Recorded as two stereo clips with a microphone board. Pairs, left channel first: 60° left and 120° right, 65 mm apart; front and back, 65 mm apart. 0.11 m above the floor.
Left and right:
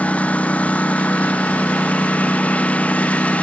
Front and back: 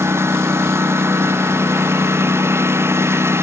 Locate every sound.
0.0 s a lawn mower: 130° left